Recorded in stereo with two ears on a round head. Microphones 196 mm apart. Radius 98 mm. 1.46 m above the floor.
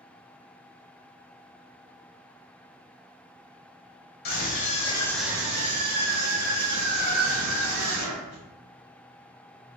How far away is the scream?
About 1.3 m.